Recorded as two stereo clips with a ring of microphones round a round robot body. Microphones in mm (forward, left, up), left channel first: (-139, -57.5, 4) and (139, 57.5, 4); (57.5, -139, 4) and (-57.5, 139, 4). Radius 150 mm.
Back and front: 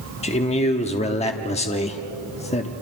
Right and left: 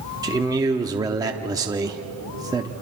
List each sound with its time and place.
0.2 s a man speaking: 170° left, 0.9 m